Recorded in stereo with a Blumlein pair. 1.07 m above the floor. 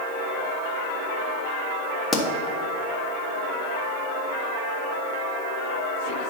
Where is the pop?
10° left, 1.3 m.